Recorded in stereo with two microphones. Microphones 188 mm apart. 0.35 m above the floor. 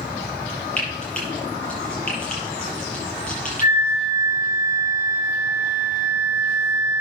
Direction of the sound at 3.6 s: 20° right (ahead or behind).